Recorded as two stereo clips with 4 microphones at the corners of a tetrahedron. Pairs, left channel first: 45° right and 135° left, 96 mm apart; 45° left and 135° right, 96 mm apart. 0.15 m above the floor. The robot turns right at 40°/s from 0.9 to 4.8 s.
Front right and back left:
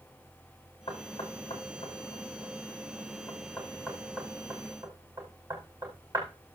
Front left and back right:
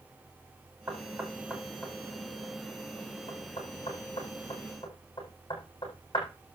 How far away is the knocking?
About 7.5 m.